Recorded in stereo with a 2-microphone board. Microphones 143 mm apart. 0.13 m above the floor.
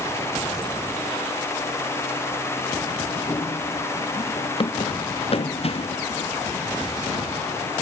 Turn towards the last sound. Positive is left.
turn(degrees=50)  # may be behind; listen again after turning